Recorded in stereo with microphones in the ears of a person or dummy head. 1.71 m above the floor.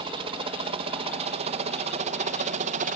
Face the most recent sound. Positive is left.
turn(degrees=-40)  # may be behind; listen again after turning